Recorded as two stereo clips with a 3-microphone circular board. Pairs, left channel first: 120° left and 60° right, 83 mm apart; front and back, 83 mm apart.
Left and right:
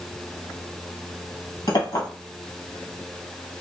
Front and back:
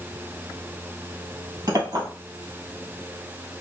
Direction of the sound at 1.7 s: 140° left.